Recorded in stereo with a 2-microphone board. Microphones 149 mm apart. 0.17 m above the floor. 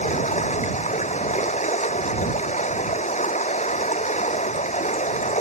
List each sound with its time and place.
0.0 s running water: 50° left (ahead or behind)